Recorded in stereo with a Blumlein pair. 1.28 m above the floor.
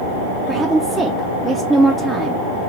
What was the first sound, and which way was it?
A woman speaking, 10° right.